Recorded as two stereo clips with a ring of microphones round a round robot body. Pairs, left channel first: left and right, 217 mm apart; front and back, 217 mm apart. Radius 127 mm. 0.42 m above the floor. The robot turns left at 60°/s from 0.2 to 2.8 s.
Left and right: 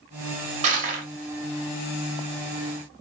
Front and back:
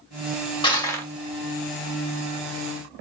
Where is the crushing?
55° right, 1.5 m; by 1.1 s 80° right, 1.5 m.